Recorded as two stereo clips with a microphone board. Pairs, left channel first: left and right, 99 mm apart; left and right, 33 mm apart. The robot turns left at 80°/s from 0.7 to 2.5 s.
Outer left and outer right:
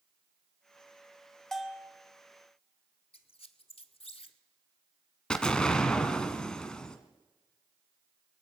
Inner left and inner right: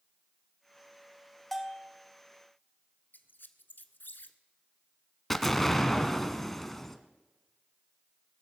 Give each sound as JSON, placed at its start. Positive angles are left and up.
{"t": 1.5, "sound": "a bell", "azimuth_deg": 5, "distance_m": 1.0}
{"t": 3.1, "sound": "a squeak", "side_deg": 80, "distance_m": 0.8}
{"t": 5.3, "sound": "an explosion", "side_deg": 10, "distance_m": 1.1}